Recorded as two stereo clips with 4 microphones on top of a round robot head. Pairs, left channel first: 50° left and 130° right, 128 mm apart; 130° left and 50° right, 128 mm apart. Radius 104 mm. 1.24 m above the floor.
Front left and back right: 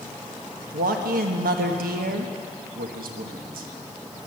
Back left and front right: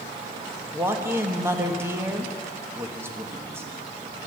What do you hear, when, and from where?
0.7 s a man speaking: 125° right, 1.4 m